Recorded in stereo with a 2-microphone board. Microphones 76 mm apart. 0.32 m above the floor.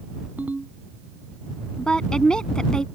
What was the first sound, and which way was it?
A ringtone, 20° right (ahead or behind).